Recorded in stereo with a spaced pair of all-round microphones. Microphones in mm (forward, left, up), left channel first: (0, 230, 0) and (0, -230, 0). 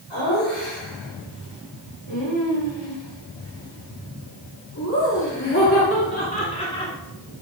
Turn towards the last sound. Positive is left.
turn(degrees=10)  # may be behind; listen again after turning